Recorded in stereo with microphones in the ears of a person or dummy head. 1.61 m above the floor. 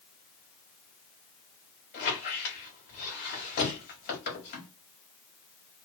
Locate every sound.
1.9 s a squeak: 40° left (ahead or behind), 1.4 m